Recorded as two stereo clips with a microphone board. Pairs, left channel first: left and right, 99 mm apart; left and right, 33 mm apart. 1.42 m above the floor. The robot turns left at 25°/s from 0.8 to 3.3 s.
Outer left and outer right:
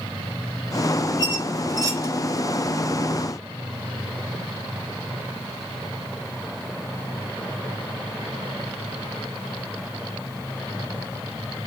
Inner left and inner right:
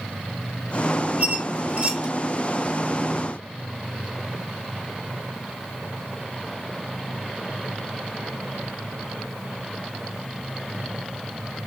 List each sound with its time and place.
1.2 s a squeak: 40° right (ahead or behind), 0.8 m; by 2.1 s 35° right (ahead or behind), 0.8 m